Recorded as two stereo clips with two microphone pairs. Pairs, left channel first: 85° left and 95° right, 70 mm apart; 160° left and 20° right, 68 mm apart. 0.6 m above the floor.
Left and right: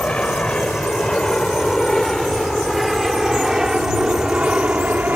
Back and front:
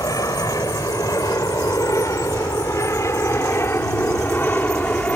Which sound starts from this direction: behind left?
An aircraft, at 0.0 s.